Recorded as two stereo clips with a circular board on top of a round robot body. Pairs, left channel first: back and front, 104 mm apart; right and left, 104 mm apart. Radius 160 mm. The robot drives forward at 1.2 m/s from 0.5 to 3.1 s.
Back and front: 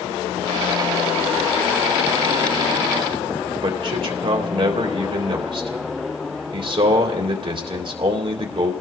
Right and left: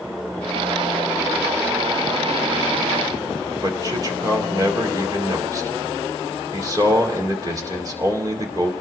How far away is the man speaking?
About 2.5 m.